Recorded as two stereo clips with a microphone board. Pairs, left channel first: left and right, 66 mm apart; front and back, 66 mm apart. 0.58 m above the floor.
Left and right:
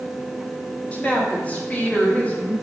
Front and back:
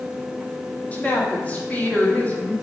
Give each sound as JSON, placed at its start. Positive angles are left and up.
{"t": 0.9, "sound": "a woman speaking", "azimuth_deg": 45, "distance_m": 1.3}